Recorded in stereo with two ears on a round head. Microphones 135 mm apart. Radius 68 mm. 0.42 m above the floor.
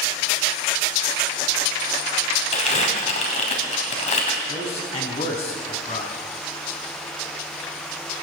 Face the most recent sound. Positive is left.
turn(degrees=40)  # may be behind; listen again after turning